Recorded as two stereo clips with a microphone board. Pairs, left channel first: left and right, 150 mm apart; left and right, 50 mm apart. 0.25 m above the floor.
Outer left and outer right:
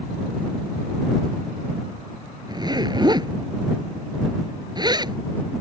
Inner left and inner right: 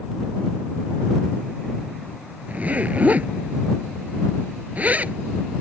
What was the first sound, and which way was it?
A zipper, 30° right (ahead or behind).